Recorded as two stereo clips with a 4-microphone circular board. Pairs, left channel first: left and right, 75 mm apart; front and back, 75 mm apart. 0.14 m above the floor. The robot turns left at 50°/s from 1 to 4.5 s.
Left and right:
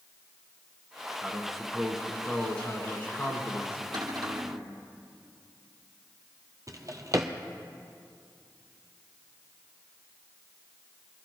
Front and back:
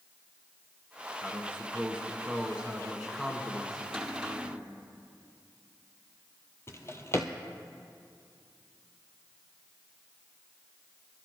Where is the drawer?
50° right, 0.9 m.